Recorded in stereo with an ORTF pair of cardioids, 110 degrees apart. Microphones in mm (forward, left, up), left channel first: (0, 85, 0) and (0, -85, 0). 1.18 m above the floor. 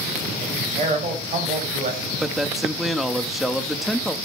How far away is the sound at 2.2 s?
About 1.5 m.